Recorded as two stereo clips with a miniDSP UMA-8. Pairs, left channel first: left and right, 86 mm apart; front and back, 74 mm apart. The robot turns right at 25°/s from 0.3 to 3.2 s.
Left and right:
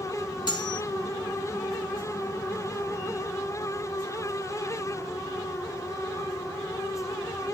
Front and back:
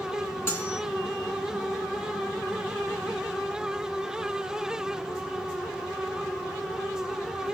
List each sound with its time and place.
0.5 s cutlery clinking: 55° left, 3 m; by 0.8 s 65° left, 3 m